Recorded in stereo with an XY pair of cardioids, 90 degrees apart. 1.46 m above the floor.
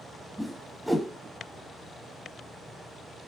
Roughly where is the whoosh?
Ahead.